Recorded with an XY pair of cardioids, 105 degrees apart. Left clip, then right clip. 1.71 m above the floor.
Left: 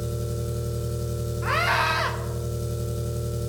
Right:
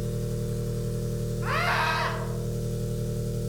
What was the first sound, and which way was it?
An engine running, 40° left.